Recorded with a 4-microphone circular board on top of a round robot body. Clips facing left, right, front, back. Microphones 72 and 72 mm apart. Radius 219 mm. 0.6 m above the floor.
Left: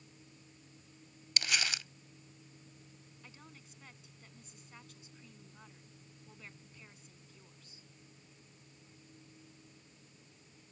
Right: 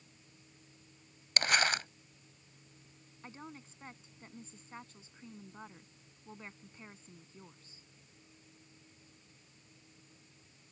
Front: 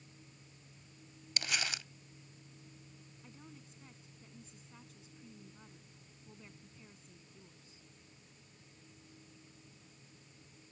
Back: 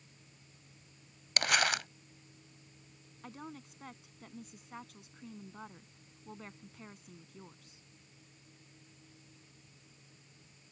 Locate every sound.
1.4 s crumpling: 140° right
3.2 s a woman speaking: 150° right